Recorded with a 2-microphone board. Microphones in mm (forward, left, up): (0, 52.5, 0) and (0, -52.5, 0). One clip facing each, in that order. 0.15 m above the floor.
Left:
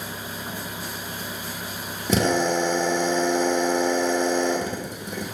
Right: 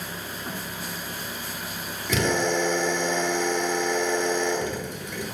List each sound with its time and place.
2.1 s a drill: 40° left (ahead or behind), 1.2 m